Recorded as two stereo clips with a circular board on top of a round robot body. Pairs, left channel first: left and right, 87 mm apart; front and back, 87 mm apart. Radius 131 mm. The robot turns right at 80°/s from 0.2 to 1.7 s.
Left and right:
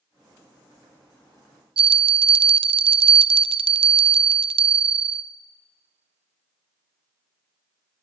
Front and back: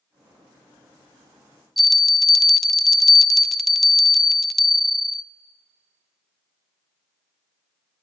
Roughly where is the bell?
Right.